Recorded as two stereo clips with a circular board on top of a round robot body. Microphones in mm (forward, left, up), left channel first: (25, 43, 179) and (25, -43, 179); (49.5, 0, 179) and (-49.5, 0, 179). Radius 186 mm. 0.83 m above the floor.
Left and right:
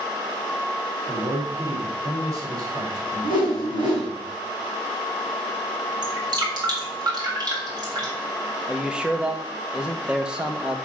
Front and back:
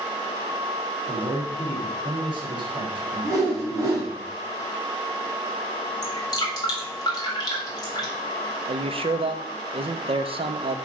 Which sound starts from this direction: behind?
A man speaking, at 8.7 s.